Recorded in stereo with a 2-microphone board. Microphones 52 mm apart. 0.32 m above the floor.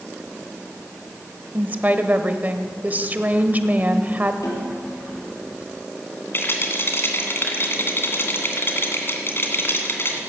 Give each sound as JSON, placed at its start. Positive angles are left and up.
{"t": 1.5, "sound": "a woman speaking", "side_deg": -30, "distance_m": 1.0}
{"t": 4.4, "sound": "a snare drum", "side_deg": 80, "distance_m": 4.0}
{"t": 6.3, "sound": "a rattle", "side_deg": 50, "distance_m": 2.0}